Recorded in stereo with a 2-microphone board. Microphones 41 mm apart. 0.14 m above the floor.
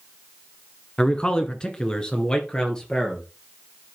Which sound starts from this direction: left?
A man speaking, at 1.0 s.